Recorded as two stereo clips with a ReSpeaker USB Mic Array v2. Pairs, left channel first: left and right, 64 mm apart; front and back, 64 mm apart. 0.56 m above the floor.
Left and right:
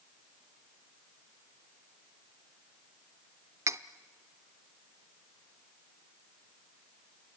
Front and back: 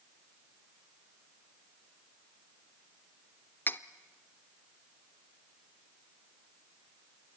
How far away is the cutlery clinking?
About 0.7 m.